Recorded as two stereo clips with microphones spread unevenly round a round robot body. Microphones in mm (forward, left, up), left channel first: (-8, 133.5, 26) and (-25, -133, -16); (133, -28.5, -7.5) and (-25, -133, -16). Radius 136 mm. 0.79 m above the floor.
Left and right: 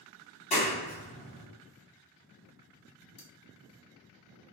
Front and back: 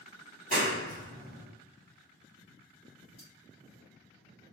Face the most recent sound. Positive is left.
turn(degrees=110)